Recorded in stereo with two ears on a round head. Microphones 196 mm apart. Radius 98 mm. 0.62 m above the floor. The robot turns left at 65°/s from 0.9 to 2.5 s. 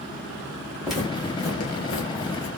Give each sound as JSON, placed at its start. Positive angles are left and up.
{"t": 0.8, "sound": "footsteps", "side_deg": 0, "distance_m": 2.0}